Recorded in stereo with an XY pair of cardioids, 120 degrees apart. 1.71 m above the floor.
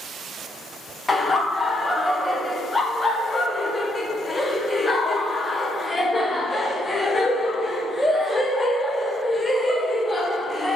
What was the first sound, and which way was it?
Laughter, 15° left.